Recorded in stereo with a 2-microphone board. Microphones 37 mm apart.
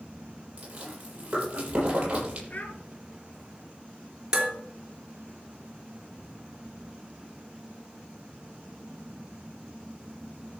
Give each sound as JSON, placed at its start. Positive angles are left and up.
{"t": 0.6, "sound": "chewing", "side_deg": -30, "distance_m": 7.5}
{"t": 2.5, "sound": "a child speaking", "side_deg": 45, "distance_m": 3.0}
{"t": 4.3, "sound": "dishes clattering", "side_deg": -20, "distance_m": 3.0}